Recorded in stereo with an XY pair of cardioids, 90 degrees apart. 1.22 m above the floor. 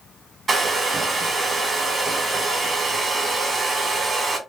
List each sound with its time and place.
0.5 s a hair dryer: 40° right, 1.5 m